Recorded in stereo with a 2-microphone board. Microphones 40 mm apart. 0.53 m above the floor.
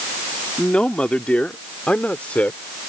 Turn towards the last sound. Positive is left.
turn(degrees=40)  # may be behind; listen again after turning